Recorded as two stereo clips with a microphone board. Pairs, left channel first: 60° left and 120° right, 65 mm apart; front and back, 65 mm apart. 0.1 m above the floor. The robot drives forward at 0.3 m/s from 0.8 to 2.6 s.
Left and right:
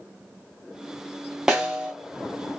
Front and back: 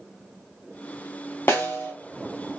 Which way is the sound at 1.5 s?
40° right.